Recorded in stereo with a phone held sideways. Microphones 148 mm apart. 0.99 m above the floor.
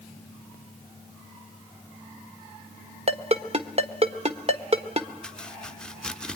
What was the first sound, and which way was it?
A ringtone, 45° right (ahead or behind).